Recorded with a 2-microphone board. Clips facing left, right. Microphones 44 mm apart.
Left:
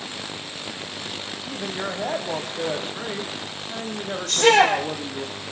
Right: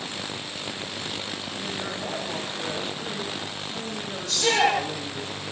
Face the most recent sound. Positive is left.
turn(degrees=60)  # may be behind; listen again after turning